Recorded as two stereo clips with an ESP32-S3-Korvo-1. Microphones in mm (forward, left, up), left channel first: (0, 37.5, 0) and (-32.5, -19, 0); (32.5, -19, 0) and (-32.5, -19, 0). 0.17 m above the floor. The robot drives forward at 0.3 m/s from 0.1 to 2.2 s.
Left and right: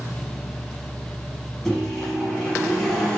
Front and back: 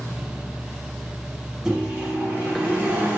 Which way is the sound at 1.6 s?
120° left.